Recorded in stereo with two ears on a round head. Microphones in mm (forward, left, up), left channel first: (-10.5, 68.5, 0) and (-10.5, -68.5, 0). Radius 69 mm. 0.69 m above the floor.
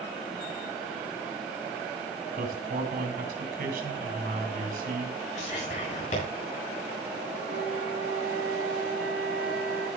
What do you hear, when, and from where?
2.4 s a man speaking: 60° right (ahead or behind), 3.5 m
5.3 s whispering: 50° left (ahead or behind), 8 m
7.5 s a flute: 70° right (ahead or behind), 3.5 m